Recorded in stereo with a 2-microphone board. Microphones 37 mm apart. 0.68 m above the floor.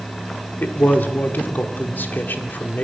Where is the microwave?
No microwave in this recording.